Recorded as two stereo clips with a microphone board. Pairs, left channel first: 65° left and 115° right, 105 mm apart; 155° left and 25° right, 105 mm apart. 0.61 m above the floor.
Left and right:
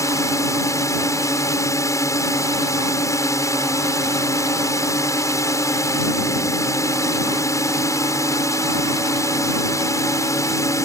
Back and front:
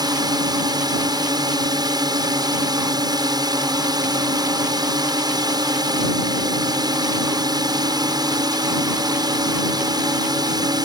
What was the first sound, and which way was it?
A drone, 15° left.